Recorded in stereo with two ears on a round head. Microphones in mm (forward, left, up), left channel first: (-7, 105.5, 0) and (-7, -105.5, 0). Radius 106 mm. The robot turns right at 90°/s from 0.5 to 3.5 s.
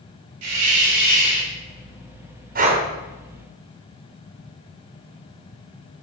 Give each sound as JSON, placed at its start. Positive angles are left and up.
{"t": 0.4, "sound": "a hiss", "azimuth_deg": -95, "distance_m": 3.5}
{"t": 2.5, "sound": "breathing", "side_deg": -40, "distance_m": 1.9}